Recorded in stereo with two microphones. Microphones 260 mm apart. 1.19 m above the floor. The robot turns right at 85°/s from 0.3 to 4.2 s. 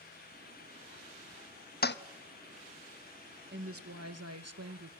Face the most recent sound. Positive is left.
turn(degrees=-80)